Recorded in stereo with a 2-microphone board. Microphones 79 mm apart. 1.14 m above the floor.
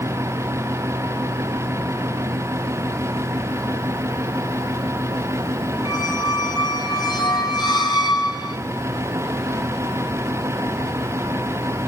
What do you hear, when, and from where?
5.8 s a squeak: 60° left (ahead or behind), 3 m